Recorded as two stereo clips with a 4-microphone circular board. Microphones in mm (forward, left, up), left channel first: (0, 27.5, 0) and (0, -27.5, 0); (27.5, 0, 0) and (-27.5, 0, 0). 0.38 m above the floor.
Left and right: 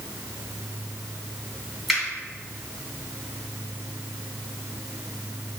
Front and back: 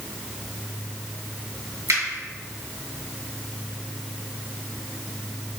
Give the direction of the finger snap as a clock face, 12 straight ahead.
6 o'clock.